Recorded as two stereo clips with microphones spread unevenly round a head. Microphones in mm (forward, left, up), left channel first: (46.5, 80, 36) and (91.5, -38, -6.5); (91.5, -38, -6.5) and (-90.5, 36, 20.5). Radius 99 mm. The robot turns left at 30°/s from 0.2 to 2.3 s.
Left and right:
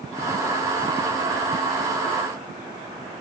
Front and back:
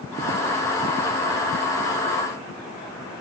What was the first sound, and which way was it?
Only background noise.